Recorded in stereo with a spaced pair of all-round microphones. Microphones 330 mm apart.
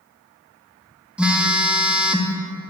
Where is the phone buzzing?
5° right (ahead or behind), 0.5 m.